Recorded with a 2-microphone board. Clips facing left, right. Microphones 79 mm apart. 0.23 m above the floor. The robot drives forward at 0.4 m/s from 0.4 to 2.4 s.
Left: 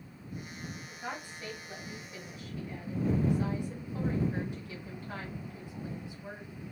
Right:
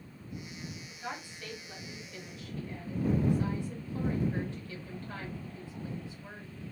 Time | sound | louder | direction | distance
0.9 | a woman speaking | left 1 dB | 15° left (ahead or behind) | 1.1 m